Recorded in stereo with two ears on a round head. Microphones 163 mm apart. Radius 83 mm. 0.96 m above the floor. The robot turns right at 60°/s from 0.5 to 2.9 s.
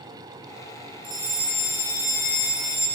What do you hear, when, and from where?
1.0 s a fire alarm: 25° right, 9.5 m; by 2.9 s 85° left, 9.5 m